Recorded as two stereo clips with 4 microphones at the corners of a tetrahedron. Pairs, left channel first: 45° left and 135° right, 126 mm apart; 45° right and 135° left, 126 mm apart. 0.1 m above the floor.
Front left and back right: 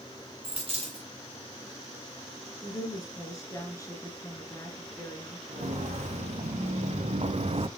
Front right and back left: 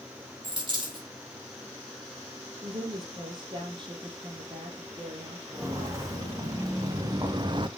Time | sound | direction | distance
0.4 | a dropped coin | 175° right | 4 m
2.6 | a woman speaking | 100° left | 2.5 m
5.5 | footsteps | 160° right | 3.5 m